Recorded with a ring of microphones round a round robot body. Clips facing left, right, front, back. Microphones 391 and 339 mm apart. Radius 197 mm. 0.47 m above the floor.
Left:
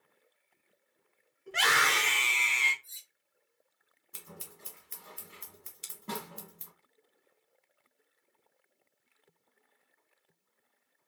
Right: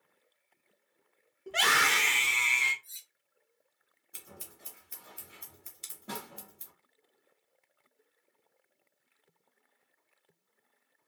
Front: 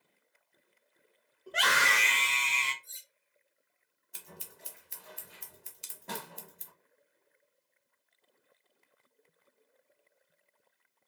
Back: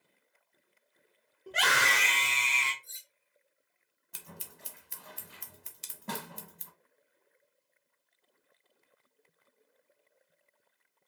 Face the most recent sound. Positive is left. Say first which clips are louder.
# left 2 dB, back 1 dB
turn(degrees=-170)